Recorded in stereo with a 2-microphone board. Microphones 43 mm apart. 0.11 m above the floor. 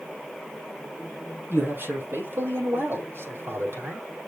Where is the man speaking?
60° right (ahead or behind), 4 m; by 4.1 s 70° right (ahead or behind), 4 m.